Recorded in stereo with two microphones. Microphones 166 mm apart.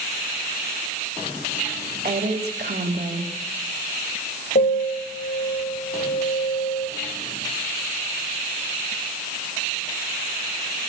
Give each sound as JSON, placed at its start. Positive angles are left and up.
{"t": 2.0, "sound": "a woman speaking", "side_deg": -75, "distance_m": 3.0}
{"t": 4.5, "sound": "a piano", "side_deg": 75, "distance_m": 3.5}